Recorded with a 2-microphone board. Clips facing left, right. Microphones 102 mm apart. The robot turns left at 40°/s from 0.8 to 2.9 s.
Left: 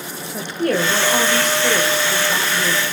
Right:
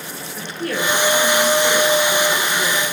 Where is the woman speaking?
75° left, 2 m; by 2.8 s 10° right, 2 m.